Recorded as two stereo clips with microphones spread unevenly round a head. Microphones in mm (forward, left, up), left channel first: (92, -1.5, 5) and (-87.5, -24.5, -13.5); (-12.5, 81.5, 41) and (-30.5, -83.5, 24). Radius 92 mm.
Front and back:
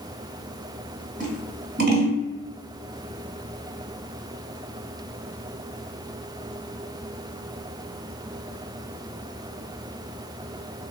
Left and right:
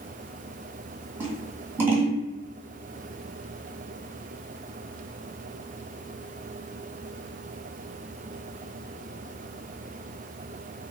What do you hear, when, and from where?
1.2 s scissors: 175° right, 2.0 m